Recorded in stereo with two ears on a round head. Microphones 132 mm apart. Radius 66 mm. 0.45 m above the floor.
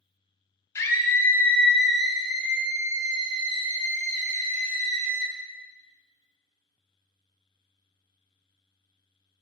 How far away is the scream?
About 2 m.